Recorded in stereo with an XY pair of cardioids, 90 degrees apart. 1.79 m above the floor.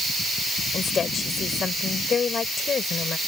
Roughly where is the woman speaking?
Ahead left.